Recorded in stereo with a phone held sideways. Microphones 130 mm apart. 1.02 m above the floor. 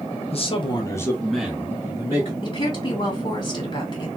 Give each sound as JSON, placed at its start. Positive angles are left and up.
{"t": 0.3, "sound": "a man speaking", "side_deg": 50, "distance_m": 1.1}
{"t": 2.4, "sound": "a woman speaking", "side_deg": 35, "distance_m": 1.8}